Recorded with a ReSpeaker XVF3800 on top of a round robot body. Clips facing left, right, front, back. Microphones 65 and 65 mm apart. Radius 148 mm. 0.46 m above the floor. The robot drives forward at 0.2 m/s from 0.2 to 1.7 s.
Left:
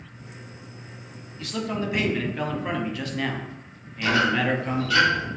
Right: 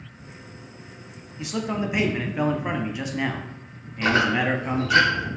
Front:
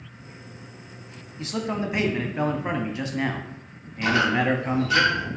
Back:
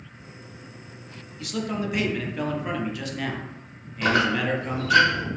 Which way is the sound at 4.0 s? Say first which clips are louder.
Right 1 dB, front 1 dB; 140° right.